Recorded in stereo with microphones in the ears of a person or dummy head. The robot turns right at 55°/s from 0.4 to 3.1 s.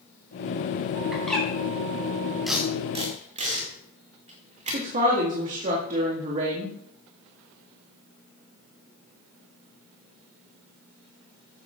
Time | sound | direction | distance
1.1 | a bird | 5° right (ahead or behind) | 4.5 m
2.5 | tape being pulled | centre (ahead or behind) | 2 m
4.7 | a woman speaking | 45° right (ahead or behind) | 1.9 m